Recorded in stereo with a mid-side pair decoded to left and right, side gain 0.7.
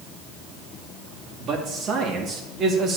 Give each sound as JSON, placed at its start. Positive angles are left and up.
{"t": 1.4, "sound": "a man speaking", "azimuth_deg": -45, "distance_m": 2.0}